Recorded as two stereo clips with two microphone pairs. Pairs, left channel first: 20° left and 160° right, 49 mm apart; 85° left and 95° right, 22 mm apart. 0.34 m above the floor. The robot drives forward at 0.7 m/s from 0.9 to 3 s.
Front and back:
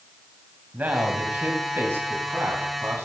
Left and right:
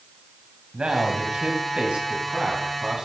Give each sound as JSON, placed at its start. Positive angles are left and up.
{"t": 0.7, "sound": "a man speaking", "azimuth_deg": -115, "distance_m": 2.0}